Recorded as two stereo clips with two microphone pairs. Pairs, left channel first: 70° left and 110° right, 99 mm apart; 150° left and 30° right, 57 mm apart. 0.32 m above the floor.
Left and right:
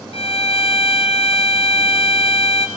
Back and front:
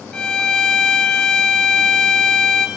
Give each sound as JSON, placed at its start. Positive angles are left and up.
{"t": 0.1, "sound": "a violin", "azimuth_deg": 80, "distance_m": 3.0}